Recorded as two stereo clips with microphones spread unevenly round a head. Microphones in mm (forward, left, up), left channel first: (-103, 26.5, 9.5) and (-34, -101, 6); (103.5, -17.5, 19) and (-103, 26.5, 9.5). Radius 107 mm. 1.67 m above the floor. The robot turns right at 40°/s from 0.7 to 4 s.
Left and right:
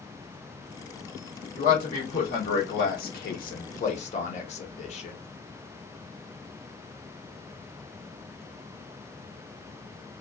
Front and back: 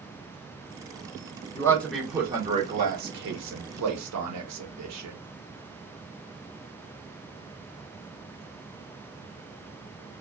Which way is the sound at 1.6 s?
60° left.